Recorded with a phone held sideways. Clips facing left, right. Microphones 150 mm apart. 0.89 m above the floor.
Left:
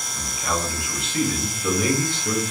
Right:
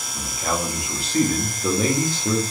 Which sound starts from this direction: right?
A man speaking, at 0.1 s.